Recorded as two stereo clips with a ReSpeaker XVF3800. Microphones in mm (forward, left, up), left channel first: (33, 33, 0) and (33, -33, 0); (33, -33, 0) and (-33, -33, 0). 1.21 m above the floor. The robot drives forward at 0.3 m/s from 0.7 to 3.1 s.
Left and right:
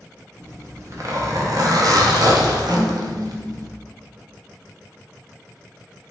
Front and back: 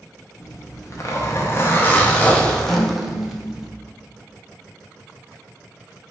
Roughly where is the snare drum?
Right.